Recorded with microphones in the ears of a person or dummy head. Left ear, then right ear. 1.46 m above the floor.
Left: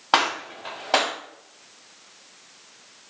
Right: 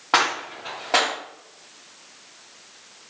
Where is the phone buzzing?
No phone buzzing in this recording.